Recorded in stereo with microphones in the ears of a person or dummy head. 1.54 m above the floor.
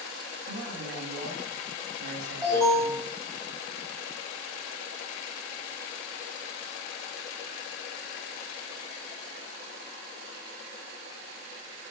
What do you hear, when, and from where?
0.5 s a man speaking: 80° right, 2 m
2.4 s an alarm: 25° right (ahead or behind), 2 m